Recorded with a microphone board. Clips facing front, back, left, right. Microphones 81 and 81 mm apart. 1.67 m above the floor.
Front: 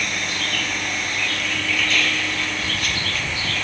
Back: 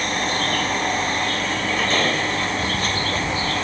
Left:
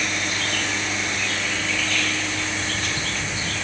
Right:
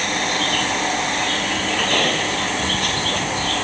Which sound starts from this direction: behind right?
A vehicle, at 0.0 s.